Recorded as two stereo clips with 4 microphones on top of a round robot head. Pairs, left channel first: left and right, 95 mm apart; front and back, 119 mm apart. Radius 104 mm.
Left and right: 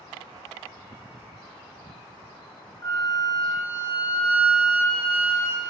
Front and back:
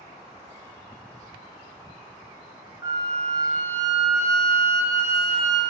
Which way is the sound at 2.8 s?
120° left.